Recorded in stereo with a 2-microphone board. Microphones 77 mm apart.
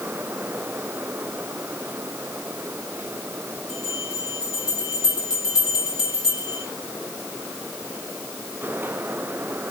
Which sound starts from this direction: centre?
A bell, at 3.7 s.